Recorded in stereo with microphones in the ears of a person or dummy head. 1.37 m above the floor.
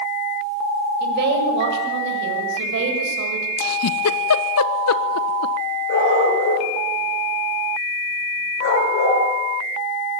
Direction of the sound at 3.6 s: 75° left (ahead or behind).